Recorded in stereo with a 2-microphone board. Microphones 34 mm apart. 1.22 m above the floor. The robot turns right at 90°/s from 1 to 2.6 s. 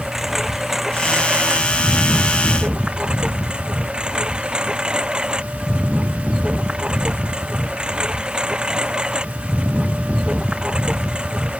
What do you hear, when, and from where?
0.0 s a lawn mower: 175° right; by 11.6 s 30° right